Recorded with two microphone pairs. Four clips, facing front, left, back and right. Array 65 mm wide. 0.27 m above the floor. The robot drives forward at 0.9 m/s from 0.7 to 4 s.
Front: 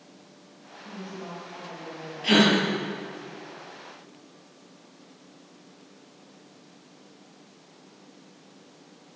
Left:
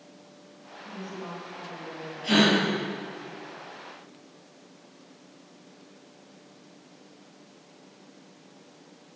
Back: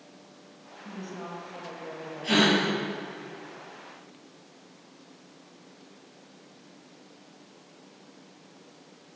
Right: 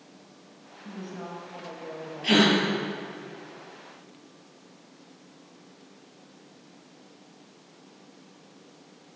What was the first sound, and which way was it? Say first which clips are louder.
A woman speaking: even, even; 115° right.